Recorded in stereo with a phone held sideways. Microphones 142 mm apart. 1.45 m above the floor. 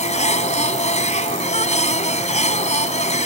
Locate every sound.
0.0 s a machine running: 55° left (ahead or behind)